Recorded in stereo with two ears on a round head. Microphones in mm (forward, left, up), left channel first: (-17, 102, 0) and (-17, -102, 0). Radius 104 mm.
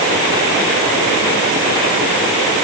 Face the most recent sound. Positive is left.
No sound to turn to.